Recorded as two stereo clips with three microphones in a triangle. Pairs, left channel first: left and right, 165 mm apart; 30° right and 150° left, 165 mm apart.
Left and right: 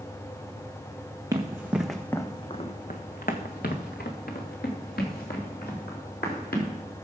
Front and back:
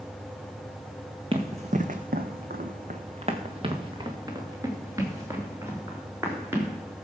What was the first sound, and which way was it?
Running footsteps, 155° right.